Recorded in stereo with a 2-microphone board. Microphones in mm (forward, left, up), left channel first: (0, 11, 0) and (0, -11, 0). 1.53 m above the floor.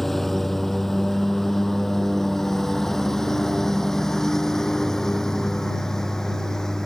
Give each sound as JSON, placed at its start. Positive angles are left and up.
{"t": 0.0, "sound": "a lawn mower", "side_deg": 5}